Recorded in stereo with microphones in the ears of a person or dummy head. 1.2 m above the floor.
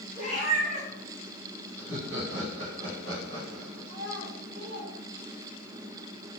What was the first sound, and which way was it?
A cat meowing, 50° right (ahead or behind).